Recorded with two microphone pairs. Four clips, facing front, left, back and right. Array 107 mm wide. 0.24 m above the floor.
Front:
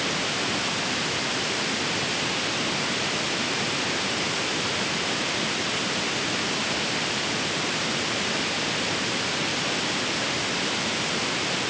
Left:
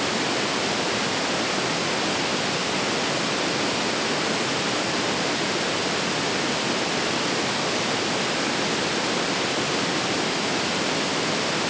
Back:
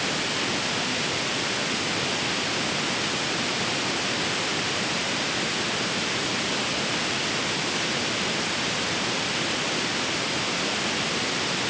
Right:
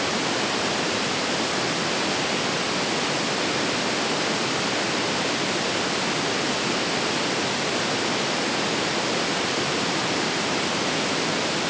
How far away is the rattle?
I don't hear a rattle.